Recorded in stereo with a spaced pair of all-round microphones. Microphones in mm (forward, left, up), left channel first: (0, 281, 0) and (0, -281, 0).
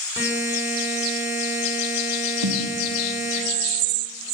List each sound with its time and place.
0.2 s a buzzer: 5° right (ahead or behind), 9.5 m
2.4 s a snare drum: 45° right (ahead or behind), 2.0 m